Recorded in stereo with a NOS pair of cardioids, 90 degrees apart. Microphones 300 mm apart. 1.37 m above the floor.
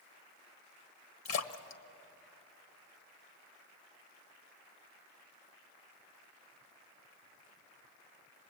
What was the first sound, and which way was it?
A splash, 60° left.